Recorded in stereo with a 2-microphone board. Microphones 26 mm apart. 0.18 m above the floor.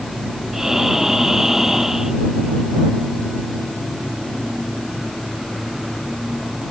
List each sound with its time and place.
0.5 s breathing: 20° right (ahead or behind)